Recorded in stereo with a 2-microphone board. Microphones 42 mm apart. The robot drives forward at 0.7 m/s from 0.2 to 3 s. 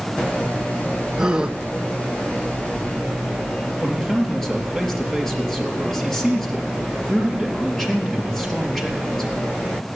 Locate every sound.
1.2 s a gasp: 15° right (ahead or behind), 1.2 m; by 1.6 s 20° right (ahead or behind), 0.9 m
3.8 s a man speaking: 10° left (ahead or behind), 4 m